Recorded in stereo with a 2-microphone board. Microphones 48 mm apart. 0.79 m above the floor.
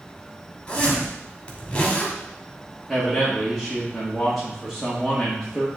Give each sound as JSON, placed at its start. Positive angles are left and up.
{"t": 0.7, "sound": "a zipper", "side_deg": 20, "distance_m": 2.0}
{"t": 2.9, "sound": "a man speaking", "side_deg": 0, "distance_m": 1.8}